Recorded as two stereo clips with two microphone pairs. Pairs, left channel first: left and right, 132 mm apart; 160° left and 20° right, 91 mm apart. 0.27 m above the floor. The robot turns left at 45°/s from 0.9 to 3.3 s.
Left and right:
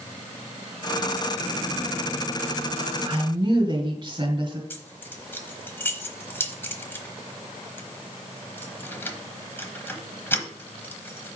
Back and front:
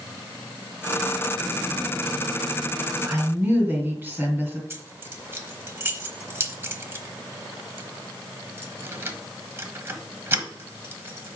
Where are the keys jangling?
25° left, 1.0 m.